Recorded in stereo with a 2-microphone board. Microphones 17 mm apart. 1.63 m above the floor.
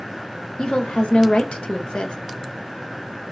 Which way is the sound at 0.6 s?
75° left (ahead or behind).